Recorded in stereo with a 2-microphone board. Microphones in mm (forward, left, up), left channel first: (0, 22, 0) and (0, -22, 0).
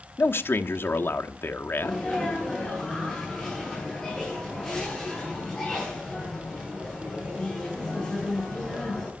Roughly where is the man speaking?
Left.